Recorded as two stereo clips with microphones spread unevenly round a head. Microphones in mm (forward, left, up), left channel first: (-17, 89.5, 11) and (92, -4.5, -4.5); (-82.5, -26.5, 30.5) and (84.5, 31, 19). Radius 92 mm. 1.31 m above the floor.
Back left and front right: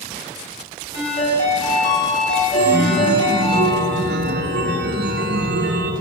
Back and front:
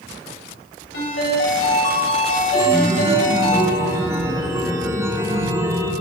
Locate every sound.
0.9 s a ringtone: 175° left, 3 m
2.5 s a chime: 55° right, 0.6 m